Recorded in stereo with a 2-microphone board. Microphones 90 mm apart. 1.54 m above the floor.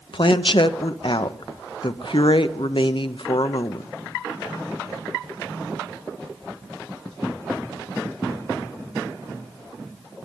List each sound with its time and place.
0.1 s a woman speaking: 65° left (ahead or behind), 0.8 m